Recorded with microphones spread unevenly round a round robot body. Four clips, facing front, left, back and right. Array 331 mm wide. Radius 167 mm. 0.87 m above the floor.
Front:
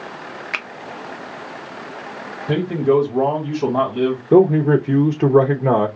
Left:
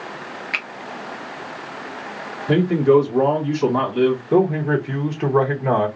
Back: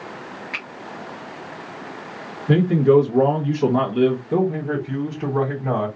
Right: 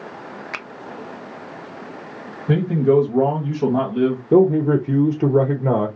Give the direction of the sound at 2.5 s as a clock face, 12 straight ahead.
4 o'clock.